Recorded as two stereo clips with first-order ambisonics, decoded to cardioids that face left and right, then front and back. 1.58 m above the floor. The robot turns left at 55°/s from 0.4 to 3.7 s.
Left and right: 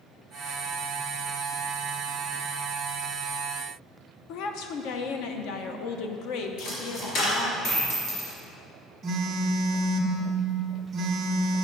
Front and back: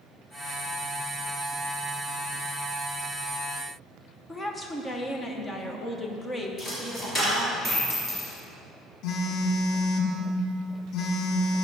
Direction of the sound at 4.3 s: 75° left.